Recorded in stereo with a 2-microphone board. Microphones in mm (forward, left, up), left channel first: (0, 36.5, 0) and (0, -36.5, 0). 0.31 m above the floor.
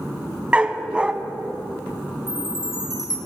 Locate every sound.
0.5 s a dog barking: 15° right (ahead or behind), 0.7 m
2.3 s a chime: 5° right (ahead or behind), 4 m